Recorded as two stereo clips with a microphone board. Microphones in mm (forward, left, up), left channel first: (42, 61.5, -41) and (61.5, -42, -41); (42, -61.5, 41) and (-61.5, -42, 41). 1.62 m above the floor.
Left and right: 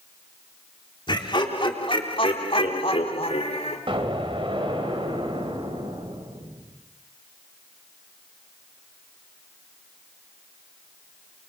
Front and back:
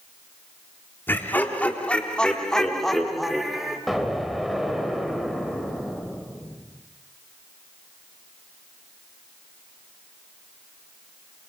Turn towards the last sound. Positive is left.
turn(degrees=-100)